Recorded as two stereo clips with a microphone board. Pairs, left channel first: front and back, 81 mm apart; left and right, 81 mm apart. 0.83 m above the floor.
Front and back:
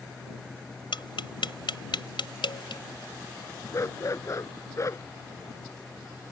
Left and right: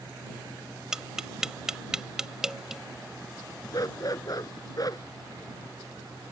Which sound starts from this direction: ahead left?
A dog barking, at 3.7 s.